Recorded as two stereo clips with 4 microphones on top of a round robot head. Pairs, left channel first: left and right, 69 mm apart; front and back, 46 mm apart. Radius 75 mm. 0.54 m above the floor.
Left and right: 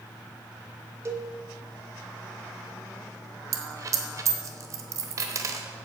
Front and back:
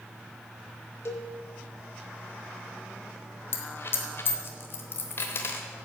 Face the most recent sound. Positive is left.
turn(degrees=-45)